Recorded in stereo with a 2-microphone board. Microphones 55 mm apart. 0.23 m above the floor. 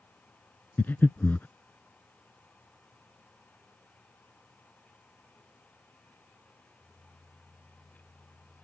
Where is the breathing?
40° left (ahead or behind).